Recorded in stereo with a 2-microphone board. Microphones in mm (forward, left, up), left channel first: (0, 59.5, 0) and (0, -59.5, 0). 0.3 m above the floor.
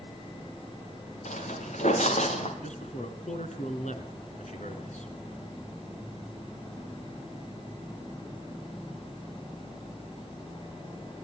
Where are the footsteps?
75° left (ahead or behind), 5.5 m; by 2.5 s 65° left (ahead or behind), 5 m.